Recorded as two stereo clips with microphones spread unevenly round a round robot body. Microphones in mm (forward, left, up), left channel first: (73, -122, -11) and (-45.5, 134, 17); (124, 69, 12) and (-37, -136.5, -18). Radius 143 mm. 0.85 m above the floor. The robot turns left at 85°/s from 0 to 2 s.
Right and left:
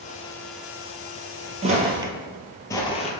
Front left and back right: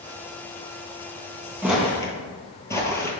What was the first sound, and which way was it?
Footsteps, 145° left.